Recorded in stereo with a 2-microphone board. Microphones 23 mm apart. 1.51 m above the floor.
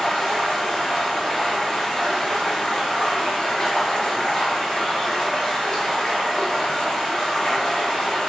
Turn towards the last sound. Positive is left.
turn(degrees=40)  # may be behind; listen again after turning